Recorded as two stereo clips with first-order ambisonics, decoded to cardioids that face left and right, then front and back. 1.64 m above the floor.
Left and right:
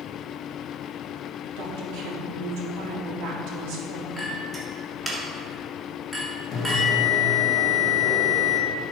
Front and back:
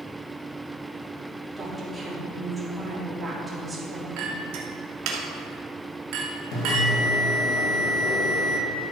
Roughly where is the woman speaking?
Right.